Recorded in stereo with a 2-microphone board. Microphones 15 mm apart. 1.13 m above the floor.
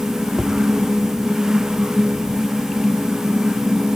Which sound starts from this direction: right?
Tapping, at 0.4 s.